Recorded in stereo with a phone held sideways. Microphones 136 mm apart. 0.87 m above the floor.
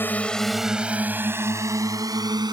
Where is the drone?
15° left (ahead or behind); by 2.5 s 30° right (ahead or behind).